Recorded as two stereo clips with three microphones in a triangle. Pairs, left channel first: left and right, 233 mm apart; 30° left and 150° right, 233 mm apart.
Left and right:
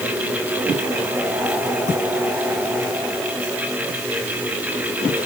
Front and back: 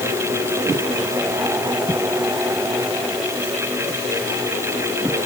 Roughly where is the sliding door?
I don't hear a sliding door.